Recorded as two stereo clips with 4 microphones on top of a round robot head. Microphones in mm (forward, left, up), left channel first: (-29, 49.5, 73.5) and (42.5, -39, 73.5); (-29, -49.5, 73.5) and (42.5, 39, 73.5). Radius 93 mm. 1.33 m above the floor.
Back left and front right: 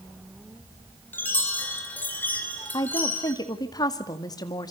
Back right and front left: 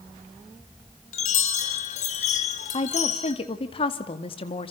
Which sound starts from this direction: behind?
A woman speaking, at 2.7 s.